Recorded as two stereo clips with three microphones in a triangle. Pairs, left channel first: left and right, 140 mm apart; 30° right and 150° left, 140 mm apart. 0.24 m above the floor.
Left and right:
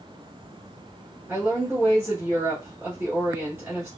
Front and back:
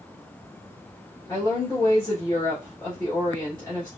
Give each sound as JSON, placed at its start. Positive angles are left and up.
{"t": 1.3, "sound": "a woman speaking", "azimuth_deg": -35, "distance_m": 1.2}